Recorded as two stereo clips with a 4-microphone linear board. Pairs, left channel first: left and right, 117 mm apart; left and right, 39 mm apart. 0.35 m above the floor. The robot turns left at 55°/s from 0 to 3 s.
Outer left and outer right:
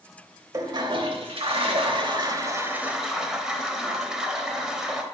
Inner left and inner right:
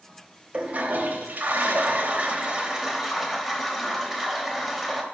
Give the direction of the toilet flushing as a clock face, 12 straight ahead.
1 o'clock.